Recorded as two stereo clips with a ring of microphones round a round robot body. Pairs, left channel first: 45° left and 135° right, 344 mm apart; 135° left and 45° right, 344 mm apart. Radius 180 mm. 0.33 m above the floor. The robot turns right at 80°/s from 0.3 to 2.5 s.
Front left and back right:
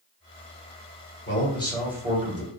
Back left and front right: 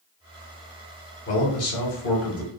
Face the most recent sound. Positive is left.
turn(degrees=-170)